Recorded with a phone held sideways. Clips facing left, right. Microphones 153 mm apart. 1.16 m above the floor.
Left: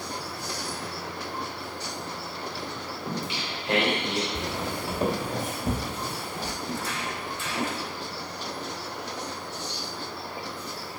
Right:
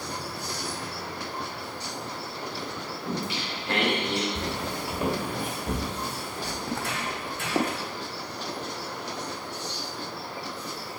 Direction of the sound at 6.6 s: 65° right (ahead or behind).